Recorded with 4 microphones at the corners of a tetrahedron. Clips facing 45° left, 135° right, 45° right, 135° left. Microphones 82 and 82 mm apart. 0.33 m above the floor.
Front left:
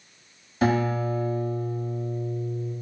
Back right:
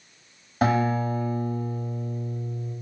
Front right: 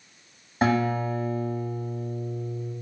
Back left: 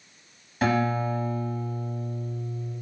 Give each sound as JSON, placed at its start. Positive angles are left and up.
{"t": 0.6, "sound": "a guitar", "azimuth_deg": -100, "distance_m": 0.8}